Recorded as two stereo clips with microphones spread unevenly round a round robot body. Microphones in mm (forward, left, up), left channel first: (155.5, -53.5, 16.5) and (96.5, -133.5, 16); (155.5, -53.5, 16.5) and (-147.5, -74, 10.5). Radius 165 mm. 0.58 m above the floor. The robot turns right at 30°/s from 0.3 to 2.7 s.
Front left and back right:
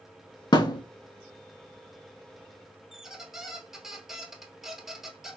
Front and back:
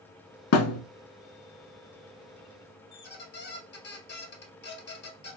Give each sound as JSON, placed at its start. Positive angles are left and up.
{"t": 0.5, "sound": "a thud", "azimuth_deg": 25, "distance_m": 0.7}
{"t": 2.9, "sound": "a squeak", "azimuth_deg": -40, "distance_m": 0.9}